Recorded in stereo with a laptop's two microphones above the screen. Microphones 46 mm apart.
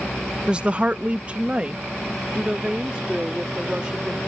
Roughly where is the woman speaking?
Centre.